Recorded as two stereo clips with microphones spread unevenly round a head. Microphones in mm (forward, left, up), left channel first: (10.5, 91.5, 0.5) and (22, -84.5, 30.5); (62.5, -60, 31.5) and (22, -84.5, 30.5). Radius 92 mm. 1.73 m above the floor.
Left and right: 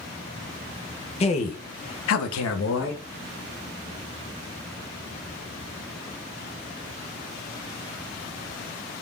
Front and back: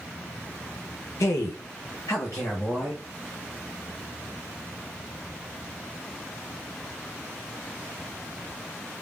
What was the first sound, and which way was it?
A man speaking, 35° left.